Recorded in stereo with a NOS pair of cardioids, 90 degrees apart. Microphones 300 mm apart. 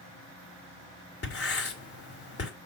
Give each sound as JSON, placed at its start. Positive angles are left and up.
{"t": 1.2, "sound": "writing", "azimuth_deg": 50, "distance_m": 2.5}